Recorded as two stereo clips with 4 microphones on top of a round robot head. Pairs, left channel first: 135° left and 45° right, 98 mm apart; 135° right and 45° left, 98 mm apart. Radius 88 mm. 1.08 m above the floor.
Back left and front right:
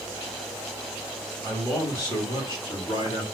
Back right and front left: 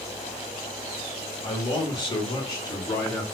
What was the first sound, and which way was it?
A man speaking, 165° right.